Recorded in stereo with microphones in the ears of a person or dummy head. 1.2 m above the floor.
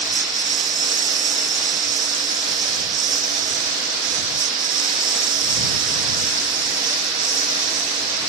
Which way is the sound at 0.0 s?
30° right (ahead or behind).